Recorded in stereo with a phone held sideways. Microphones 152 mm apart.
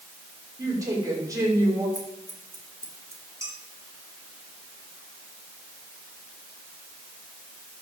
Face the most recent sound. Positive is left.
turn(degrees=-20)  # may be behind; listen again after turning